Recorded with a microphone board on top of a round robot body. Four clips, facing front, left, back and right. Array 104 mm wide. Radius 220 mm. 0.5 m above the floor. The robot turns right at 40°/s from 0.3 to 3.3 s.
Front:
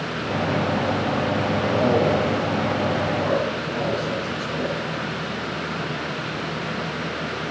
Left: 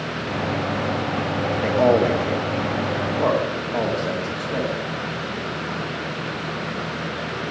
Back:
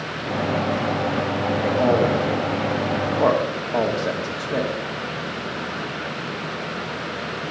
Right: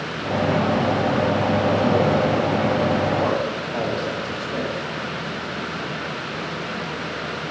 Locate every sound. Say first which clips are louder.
1.6 s a man speaking: left 5 dB, back 1 dB; 100° left, 1.5 m; by 4.7 s 165° left, 1.5 m